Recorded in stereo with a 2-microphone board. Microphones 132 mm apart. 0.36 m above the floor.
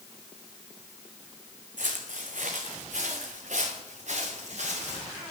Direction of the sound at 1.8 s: 80° right.